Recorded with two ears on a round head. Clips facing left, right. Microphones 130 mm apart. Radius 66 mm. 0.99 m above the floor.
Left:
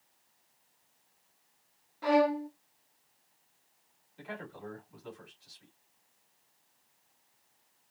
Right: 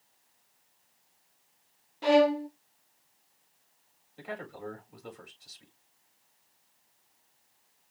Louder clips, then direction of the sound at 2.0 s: Right 4 dB; 30° right (ahead or behind).